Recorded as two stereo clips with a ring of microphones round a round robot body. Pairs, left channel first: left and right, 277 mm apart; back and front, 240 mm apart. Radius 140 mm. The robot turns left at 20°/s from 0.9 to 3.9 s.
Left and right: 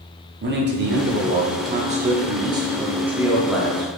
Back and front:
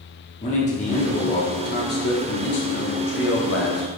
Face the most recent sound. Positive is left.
turn(degrees=175)